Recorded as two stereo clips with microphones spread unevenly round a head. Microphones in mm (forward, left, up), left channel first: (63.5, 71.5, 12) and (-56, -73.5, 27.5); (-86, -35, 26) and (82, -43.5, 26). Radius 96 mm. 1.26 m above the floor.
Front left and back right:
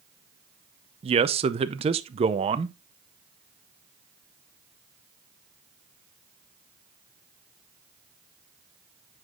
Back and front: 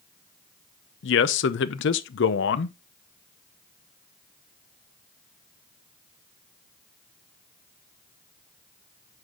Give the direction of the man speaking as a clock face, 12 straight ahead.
6 o'clock.